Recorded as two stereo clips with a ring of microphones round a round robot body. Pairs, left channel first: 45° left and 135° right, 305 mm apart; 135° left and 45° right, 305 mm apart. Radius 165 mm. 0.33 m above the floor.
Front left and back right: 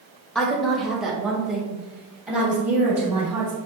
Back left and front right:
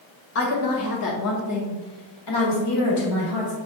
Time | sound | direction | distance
0.3 | a woman speaking | 130° left | 1.9 m